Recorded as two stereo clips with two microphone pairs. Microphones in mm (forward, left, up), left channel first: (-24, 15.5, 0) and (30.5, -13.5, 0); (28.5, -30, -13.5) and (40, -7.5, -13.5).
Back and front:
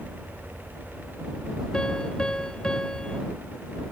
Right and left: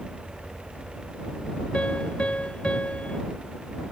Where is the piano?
135° right.